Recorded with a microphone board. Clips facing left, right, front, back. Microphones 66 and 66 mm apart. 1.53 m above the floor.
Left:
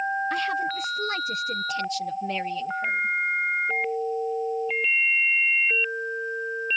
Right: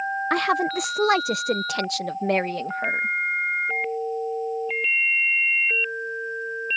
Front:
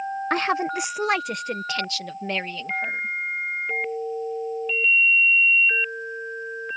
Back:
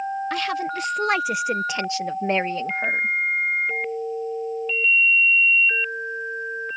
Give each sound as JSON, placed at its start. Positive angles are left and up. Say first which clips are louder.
{"t": 0.3, "sound": "a woman speaking", "louder": "right 4 dB, front 2 dB", "azimuth_deg": -55}